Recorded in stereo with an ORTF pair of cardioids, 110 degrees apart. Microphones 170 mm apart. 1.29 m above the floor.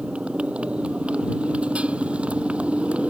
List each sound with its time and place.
0.0 s a motorcycle: 5° right